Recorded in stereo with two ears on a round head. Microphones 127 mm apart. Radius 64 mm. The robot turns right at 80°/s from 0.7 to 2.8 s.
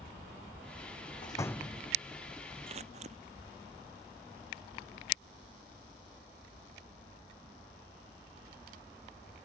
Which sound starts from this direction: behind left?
A door slam, at 1.2 s.